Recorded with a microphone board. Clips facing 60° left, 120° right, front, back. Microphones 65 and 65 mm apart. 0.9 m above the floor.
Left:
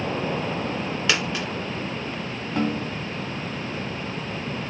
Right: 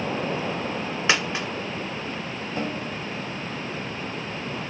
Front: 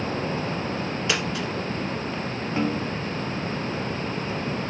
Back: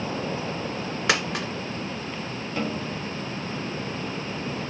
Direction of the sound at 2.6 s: 60° left.